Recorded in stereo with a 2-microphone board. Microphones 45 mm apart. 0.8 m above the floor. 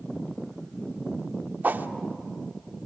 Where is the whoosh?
45° right (ahead or behind), 0.9 m.